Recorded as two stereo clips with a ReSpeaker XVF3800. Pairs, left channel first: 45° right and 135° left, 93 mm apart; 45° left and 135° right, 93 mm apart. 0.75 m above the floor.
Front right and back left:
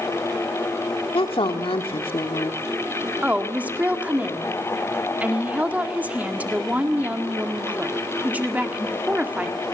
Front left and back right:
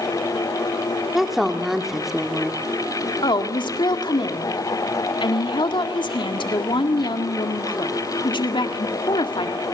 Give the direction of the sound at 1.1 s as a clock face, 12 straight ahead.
2 o'clock.